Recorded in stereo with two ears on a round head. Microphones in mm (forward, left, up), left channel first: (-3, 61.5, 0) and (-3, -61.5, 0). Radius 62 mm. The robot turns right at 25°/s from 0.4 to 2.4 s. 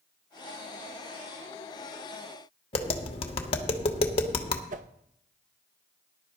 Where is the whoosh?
55° right (ahead or behind), 0.6 m.